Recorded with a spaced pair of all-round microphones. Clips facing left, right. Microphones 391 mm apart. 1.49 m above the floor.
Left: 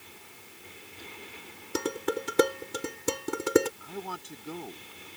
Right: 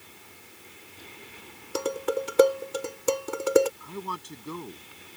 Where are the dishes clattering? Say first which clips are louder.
Right 2 dB; 35° left (ahead or behind).